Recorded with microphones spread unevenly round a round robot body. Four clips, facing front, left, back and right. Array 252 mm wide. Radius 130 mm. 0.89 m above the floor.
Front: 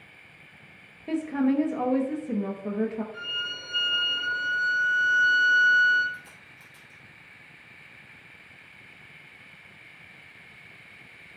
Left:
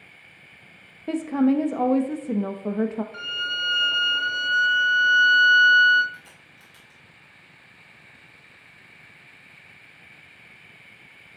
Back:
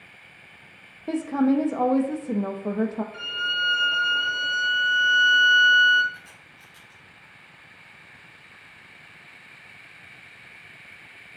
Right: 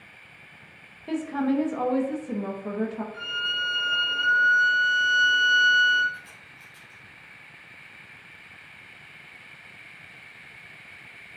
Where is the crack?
35° left, 3.5 m.